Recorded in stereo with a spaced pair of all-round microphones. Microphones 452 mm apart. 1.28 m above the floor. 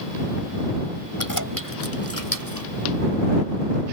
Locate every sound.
1.2 s keys jangling: 45° left (ahead or behind)